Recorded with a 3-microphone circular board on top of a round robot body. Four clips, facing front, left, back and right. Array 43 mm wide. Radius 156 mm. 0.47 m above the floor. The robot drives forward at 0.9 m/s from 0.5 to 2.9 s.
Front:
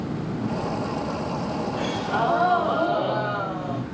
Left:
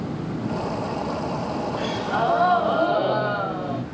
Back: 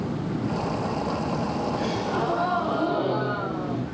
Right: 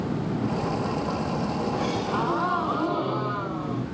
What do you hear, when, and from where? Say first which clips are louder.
1.8 s a gasp: left 2 dB, front 2 dB; 55° left, 5 m; by 3.8 s 65° left, 4.5 m